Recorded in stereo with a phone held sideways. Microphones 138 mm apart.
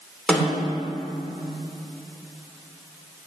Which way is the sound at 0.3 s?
5° left (ahead or behind).